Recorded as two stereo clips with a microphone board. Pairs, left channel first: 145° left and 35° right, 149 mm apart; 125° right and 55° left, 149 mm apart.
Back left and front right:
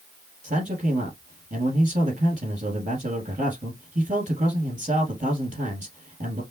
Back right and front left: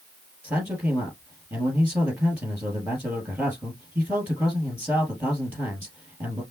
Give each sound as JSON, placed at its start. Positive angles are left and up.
{"t": 0.4, "sound": "a man speaking", "azimuth_deg": -25, "distance_m": 3.5}